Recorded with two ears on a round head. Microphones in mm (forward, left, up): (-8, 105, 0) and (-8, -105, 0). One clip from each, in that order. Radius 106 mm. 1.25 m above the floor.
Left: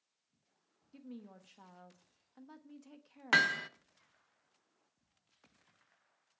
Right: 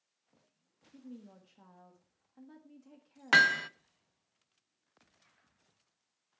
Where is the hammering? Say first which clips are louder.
Right 5 dB; 10° right (ahead or behind), 0.7 m.